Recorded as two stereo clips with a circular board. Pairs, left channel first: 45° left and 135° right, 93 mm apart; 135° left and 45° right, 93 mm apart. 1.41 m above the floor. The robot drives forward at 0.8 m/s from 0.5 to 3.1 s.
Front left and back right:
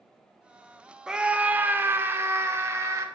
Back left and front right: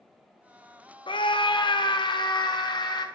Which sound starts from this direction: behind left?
A scream, at 1.1 s.